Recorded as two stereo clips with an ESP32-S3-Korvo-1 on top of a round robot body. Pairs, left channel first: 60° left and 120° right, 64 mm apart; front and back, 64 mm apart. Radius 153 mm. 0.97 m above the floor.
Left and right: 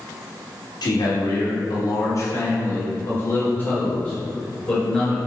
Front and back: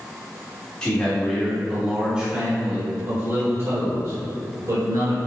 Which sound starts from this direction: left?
A man speaking, at 0.8 s.